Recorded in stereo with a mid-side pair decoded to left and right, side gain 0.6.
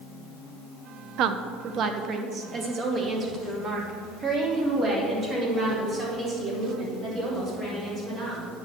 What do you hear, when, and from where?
1.2 s a woman speaking: 65° right, 0.8 m; by 8.4 s 30° right, 6.5 m